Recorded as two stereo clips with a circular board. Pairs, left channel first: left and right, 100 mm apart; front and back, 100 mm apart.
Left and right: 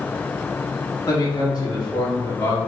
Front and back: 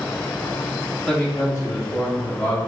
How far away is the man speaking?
About 0.9 m.